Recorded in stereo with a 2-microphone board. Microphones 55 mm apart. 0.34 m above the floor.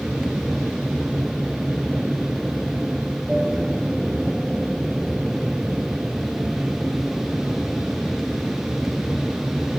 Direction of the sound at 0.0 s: 5° right (ahead or behind).